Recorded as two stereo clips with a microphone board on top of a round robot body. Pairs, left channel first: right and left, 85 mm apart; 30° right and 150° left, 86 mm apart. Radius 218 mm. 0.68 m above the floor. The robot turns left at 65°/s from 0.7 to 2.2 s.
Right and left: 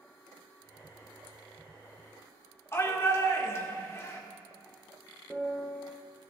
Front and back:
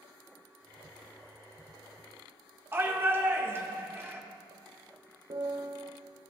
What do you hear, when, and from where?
2.7 s a shout: 150° right, 2.5 m
5.3 s a piano: 175° right, 1.3 m